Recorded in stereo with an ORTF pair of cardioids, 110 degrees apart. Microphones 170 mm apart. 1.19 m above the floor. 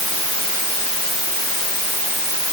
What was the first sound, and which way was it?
Only background noise.